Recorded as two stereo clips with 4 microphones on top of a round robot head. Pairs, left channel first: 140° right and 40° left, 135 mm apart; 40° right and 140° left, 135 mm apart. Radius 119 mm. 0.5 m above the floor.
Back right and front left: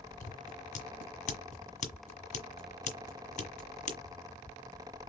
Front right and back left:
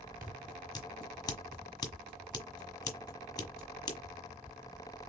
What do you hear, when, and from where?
0.2 s scissors: 105° right, 1.4 m